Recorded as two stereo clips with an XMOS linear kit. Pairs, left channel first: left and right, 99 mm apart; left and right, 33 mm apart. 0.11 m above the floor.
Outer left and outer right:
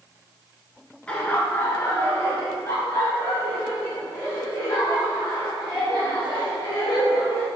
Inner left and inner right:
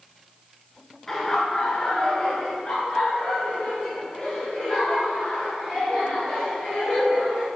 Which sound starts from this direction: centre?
Laughter, at 1.1 s.